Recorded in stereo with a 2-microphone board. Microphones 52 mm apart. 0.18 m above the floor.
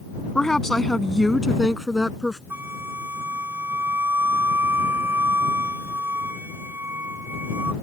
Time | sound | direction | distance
0.3 | a woman speaking | 15° left (ahead or behind) | ?
2.5 | a flute | 45° right (ahead or behind) | ?